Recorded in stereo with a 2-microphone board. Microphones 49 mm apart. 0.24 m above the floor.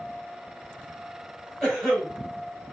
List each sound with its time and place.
1.6 s a cough: 10° left (ahead or behind), 1.6 m